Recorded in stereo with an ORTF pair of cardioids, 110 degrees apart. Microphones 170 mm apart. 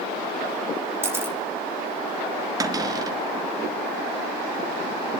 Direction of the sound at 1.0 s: 15° right.